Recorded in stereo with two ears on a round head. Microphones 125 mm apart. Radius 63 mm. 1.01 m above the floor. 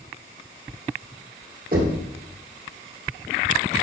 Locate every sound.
1.7 s knocking: 65° right (ahead or behind), 2 m